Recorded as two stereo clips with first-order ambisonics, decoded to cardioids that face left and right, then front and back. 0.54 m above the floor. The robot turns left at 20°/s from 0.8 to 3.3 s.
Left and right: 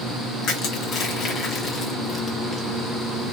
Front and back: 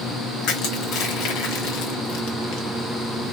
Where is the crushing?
40° left, 0.9 m; by 2.7 s straight ahead, 0.9 m.